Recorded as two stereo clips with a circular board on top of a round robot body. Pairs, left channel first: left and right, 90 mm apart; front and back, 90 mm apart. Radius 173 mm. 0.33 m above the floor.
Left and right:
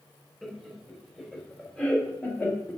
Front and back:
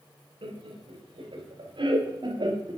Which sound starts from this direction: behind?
Laughter, at 0.4 s.